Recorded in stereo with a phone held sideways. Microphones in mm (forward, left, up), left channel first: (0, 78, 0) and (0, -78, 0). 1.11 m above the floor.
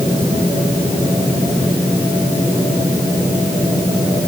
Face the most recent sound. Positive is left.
No sound to turn to.